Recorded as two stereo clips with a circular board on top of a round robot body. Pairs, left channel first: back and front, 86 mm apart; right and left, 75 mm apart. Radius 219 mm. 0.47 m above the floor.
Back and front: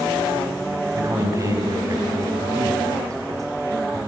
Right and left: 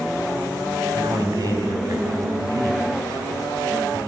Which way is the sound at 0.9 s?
55° left.